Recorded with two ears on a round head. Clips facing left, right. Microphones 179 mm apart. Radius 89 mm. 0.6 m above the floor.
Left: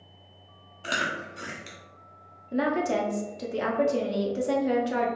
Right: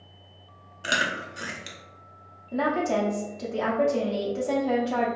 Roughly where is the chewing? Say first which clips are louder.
Right 2 dB; centre.